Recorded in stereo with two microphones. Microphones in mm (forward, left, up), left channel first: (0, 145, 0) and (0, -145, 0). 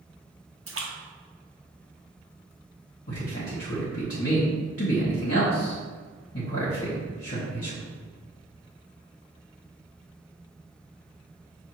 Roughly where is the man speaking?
Left.